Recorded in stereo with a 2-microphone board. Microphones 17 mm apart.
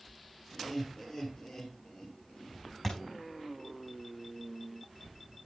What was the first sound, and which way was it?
Laughter, 40° left (ahead or behind).